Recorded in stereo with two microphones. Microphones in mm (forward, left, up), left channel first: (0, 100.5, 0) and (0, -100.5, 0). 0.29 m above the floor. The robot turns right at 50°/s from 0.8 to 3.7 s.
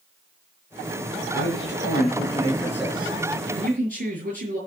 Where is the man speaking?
100° left, 6.5 m; by 4.6 s 140° right, 6.5 m.